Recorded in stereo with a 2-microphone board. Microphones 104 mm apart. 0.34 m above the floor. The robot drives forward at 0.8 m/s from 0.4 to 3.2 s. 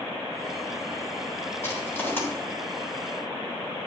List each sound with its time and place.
1.6 s crushing: 25° left (ahead or behind), 3 m; by 2.2 s 20° left (ahead or behind), 3.5 m